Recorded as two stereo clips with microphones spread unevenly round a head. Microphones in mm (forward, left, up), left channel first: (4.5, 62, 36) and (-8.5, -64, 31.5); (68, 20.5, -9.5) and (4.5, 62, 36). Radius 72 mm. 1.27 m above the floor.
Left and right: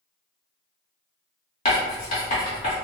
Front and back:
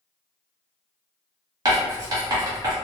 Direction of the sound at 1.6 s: 130° left.